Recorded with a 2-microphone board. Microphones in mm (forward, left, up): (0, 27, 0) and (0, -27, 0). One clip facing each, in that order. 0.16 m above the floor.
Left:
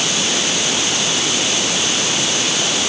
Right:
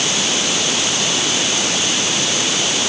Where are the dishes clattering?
I don't hear dishes clattering.